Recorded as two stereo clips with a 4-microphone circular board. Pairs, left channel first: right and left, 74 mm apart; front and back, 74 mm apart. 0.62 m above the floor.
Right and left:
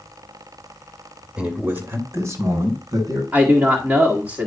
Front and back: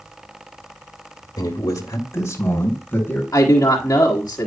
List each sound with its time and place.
1.4 s a man speaking: 20° left, 1.5 m; by 3.2 s 70° left, 3 m
3.3 s a man speaking: 35° left, 1.5 m